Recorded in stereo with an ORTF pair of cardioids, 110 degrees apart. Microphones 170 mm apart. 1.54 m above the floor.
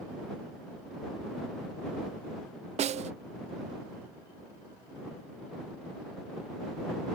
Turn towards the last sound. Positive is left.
turn(degrees=-40)